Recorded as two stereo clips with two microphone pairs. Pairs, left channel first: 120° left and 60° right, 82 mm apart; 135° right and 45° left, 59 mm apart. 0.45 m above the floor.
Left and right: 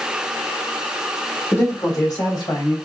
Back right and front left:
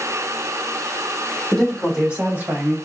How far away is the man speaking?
About 1.3 m.